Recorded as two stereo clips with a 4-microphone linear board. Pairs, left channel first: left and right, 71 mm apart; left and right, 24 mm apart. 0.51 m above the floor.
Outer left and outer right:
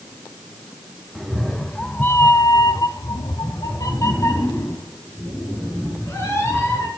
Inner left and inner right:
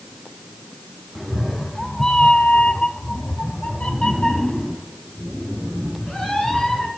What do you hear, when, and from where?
1.1 s a cat meowing: centre (ahead or behind), 1.5 m; by 6.9 s 35° left (ahead or behind), 4.5 m